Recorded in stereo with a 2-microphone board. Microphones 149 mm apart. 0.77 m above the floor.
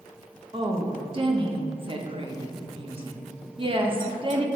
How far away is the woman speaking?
About 0.8 m.